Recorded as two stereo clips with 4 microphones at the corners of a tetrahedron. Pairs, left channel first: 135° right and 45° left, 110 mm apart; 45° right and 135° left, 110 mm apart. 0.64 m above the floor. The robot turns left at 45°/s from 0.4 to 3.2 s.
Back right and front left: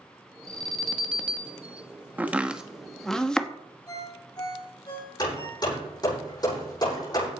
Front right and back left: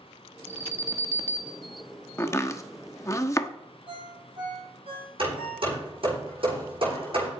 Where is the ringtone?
170° left, 9.5 m.